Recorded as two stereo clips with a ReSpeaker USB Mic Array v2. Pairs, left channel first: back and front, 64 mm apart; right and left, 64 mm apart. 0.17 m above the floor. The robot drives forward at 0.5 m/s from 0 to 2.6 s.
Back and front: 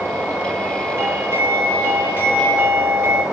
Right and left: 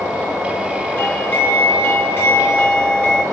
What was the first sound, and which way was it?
A doorbell, 35° right.